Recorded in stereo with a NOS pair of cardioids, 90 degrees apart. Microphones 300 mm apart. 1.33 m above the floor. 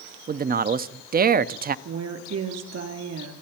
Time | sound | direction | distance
0.3 | a man speaking | 30° right | 0.6 m
1.9 | a woman speaking | 60° right | 3 m